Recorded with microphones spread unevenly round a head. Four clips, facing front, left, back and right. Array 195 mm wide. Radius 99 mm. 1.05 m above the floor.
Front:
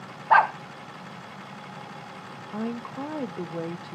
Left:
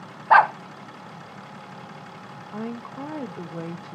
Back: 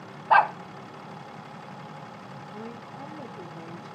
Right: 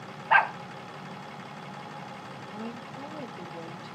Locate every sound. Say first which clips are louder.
0.3 s a dog barking: left 7 dB, front 1 dB; 60° left, 0.5 m
2.5 s a woman speaking: left 7 dB, front 10 dB; 35° left, 1.2 m